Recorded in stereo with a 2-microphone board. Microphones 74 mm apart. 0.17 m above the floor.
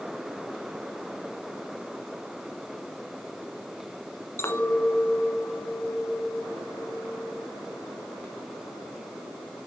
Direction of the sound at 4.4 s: 35° left (ahead or behind).